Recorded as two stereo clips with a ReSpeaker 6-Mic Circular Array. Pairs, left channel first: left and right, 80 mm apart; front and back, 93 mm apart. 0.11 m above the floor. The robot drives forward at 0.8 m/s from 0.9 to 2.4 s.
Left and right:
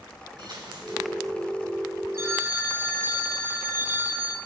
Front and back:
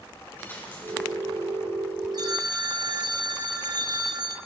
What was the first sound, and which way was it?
A dropped coin, 65° right.